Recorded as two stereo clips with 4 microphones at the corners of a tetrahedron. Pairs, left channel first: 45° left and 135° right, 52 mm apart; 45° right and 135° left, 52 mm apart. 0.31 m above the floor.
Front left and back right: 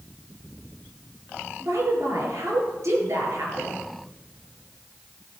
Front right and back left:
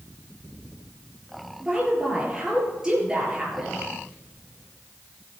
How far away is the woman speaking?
About 5 m.